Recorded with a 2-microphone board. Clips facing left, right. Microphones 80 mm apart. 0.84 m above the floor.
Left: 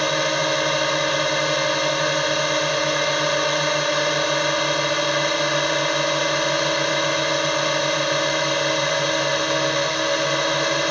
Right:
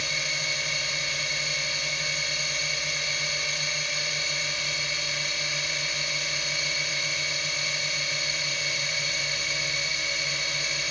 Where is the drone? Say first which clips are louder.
Left 13 dB; 65° left (ahead or behind).